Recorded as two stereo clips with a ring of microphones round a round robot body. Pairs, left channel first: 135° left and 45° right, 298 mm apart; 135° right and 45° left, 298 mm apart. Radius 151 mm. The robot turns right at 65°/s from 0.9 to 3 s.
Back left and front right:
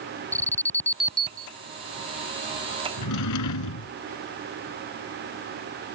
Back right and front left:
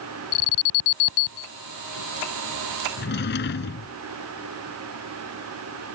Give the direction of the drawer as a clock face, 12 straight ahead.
6 o'clock.